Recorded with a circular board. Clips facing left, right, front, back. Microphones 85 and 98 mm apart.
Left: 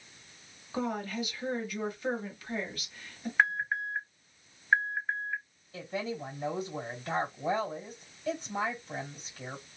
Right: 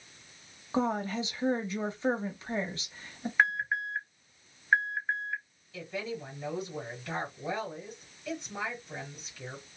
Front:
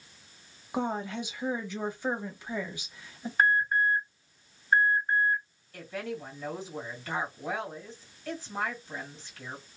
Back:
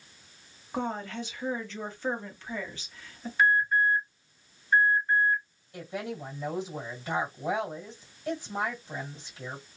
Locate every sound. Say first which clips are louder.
0.7 s a woman speaking: right 4 dB, front 1 dB; 65° right, 1.0 m
3.4 s an alarm: even, back 1 dB; straight ahead, 1.1 m
5.7 s a woman speaking: left 1 dB, back 1 dB; 120° left, 1.7 m